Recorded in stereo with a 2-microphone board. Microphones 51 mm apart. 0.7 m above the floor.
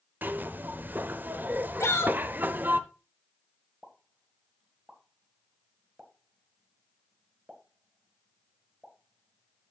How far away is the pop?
About 1.7 m.